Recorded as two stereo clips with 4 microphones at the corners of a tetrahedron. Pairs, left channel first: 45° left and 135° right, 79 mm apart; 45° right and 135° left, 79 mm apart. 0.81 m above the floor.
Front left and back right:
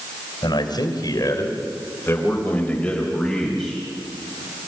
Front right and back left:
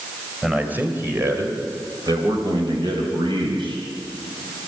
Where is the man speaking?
60° left, 3.5 m; by 3.8 s 135° left, 5 m.